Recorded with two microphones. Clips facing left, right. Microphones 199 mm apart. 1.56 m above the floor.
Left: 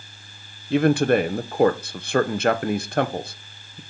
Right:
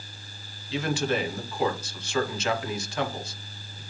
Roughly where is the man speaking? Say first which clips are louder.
Left 10 dB; left.